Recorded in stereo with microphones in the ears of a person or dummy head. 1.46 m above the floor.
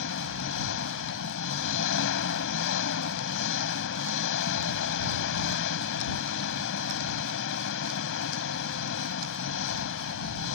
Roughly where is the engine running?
Left.